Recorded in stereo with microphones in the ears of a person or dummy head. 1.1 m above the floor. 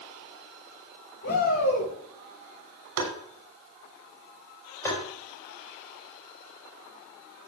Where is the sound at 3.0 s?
85° right, 3 m.